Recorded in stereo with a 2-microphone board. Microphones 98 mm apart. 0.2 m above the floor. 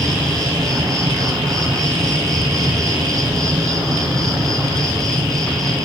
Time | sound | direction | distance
0.0 | an insect | 35° right (ahead or behind) | 2 m